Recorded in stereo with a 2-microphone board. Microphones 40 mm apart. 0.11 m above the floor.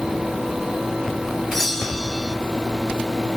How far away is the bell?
About 0.8 m.